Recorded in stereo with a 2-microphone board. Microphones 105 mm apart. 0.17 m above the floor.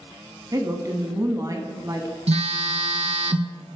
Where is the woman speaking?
35° right (ahead or behind), 1.2 m.